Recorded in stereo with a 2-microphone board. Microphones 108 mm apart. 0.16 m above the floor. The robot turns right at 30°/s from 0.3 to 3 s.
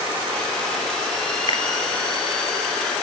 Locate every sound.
1.5 s a finger snap: 55° left (ahead or behind), 1.6 m